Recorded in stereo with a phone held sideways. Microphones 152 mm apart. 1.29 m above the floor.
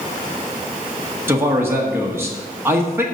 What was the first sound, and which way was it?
A man speaking, 15° right (ahead or behind).